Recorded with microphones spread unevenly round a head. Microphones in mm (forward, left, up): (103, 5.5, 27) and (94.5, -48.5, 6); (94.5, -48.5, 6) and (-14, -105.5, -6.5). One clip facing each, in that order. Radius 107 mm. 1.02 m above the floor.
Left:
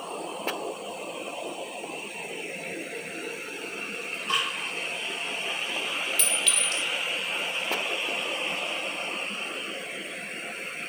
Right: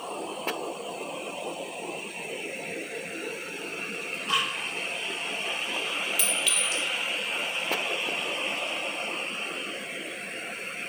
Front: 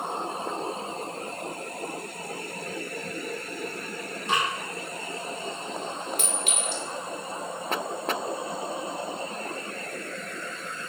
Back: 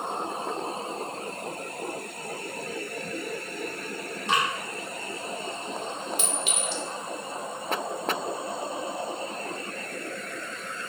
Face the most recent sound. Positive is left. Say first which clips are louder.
# even, even
turn(degrees=-15)